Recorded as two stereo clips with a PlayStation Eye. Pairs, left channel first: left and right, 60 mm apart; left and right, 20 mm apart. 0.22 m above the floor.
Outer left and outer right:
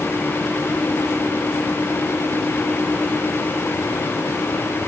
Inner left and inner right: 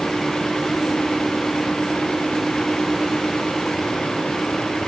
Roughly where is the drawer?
No drawer in this recording.